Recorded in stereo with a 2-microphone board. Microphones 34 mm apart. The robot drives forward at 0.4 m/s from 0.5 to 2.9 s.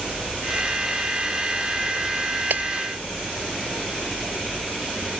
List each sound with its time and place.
2.5 s breaking glass: 65° right (ahead or behind)